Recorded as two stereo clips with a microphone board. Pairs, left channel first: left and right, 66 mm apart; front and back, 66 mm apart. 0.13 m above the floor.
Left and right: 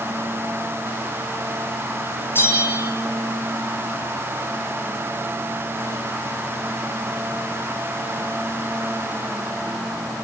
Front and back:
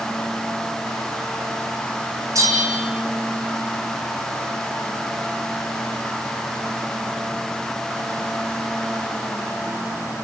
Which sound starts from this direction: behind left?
A bell, at 2.4 s.